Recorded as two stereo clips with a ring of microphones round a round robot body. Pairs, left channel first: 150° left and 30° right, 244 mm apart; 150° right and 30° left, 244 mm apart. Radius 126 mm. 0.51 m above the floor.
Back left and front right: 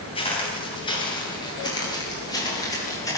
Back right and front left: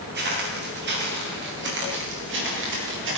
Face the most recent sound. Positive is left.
turn(degrees=70)